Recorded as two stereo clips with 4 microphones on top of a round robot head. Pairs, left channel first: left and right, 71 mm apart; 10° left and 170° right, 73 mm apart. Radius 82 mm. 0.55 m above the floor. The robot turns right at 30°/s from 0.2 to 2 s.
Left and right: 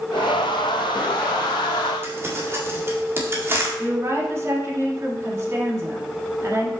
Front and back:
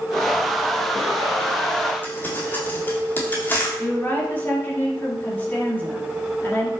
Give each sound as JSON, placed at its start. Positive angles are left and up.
{"t": 2.0, "sound": "crumpling", "azimuth_deg": -50, "distance_m": 1.9}
{"t": 3.8, "sound": "a woman speaking", "azimuth_deg": -50, "distance_m": 2.0}